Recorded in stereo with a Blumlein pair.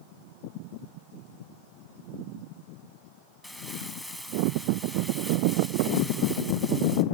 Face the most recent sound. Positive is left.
turn(degrees=5)